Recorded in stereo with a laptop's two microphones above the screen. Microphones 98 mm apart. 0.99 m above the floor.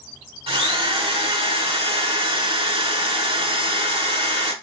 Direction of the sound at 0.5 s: 70° right (ahead or behind).